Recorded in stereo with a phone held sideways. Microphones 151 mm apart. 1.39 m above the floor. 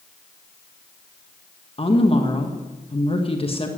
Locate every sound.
1.8 s a woman speaking: 40° left (ahead or behind), 1.5 m